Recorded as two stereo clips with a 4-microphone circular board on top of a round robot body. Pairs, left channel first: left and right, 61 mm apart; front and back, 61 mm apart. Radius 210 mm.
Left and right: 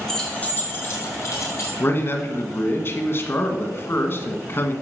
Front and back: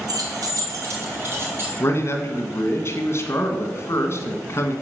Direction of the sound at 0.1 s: 175° left.